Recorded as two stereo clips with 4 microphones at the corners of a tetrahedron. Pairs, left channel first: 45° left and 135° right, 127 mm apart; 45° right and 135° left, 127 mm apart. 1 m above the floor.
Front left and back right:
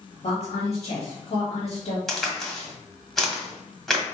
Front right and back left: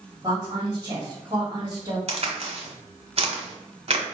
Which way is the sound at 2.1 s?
130° left.